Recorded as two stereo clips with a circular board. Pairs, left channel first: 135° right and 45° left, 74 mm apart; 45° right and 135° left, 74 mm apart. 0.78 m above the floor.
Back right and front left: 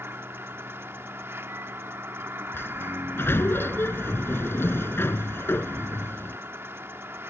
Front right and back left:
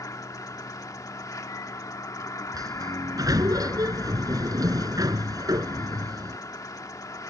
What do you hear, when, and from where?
0.0 s an insect: 10° right
2.5 s a sliding door: 165° left